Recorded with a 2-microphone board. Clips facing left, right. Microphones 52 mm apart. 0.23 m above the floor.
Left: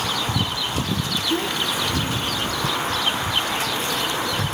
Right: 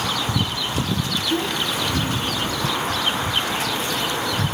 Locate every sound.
1.3 s a child speaking: 20° left (ahead or behind), 1.3 m; by 2.8 s 15° right (ahead or behind), 1.7 m